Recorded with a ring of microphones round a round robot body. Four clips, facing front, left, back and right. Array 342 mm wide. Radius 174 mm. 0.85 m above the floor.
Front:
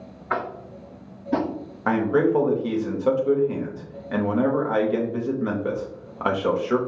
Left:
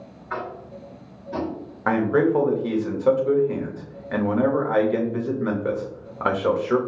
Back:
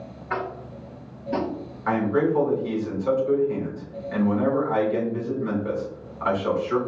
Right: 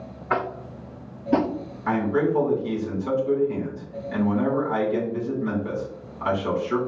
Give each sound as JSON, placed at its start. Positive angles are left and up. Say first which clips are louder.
{"t": 0.3, "sound": "tapping", "louder": "right 5 dB, front 2 dB", "azimuth_deg": -70, "distance_m": 0.5}
{"t": 1.9, "sound": "a man speaking", "louder": "left 3 dB, front 2 dB", "azimuth_deg": 50, "distance_m": 1.2}